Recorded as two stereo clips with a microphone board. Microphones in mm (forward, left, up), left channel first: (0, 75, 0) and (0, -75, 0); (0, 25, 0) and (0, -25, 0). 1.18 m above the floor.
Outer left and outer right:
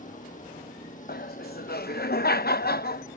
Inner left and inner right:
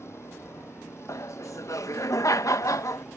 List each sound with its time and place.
0.0 s a vehicle: 55° left (ahead or behind)
1.1 s laughter: 75° left (ahead or behind)